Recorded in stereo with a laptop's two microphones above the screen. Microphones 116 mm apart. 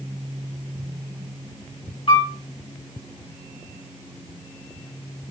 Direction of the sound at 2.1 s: 50° left (ahead or behind).